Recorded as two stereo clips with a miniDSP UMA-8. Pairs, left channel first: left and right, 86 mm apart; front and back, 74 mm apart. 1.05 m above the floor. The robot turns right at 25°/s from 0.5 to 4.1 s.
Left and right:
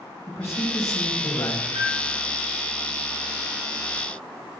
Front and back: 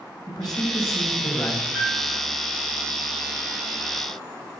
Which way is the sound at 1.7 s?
95° right.